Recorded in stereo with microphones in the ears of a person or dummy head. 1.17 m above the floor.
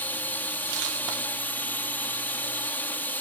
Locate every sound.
0.0 s a drone: 10° left (ahead or behind)